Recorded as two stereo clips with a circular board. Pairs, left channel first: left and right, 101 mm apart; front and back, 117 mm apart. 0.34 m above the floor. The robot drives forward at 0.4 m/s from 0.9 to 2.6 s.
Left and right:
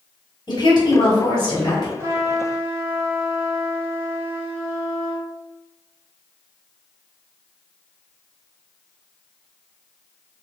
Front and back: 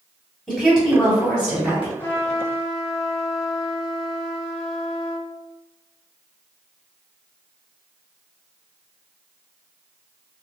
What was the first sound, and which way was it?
A woman speaking, 80° left.